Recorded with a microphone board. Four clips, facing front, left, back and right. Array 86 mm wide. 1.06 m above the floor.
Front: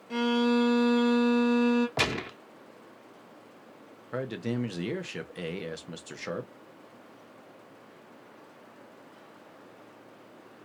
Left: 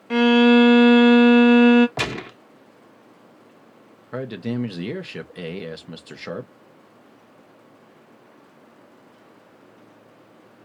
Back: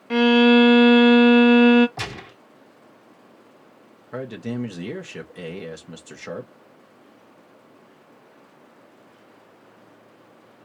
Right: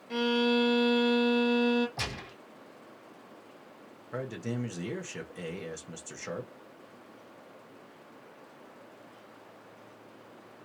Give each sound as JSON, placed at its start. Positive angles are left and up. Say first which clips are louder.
{"t": 0.1, "sound": "a violin", "louder": "left 13 dB, back 11 dB", "azimuth_deg": 140, "distance_m": 0.5}
{"t": 2.0, "sound": "a gunshot", "louder": "left 11 dB, front 4 dB", "azimuth_deg": 55, "distance_m": 1.1}
{"t": 4.1, "sound": "a man speaking", "louder": "left 8 dB, back 2 dB", "azimuth_deg": 80, "distance_m": 0.8}